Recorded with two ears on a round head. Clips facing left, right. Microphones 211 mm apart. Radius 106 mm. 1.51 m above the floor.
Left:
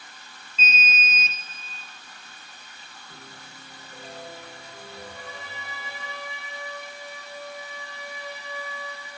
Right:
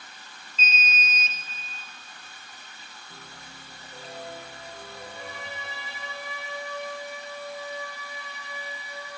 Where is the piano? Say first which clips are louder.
Left 1 dB; 5° left (ahead or behind), 1.0 m.